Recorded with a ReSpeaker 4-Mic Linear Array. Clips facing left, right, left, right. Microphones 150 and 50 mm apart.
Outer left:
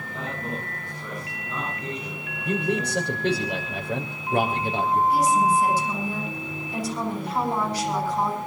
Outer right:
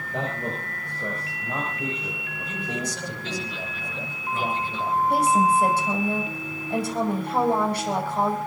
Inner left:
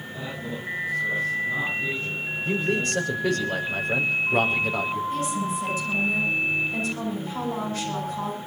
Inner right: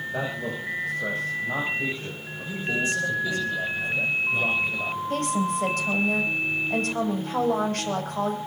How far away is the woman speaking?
About 7.5 m.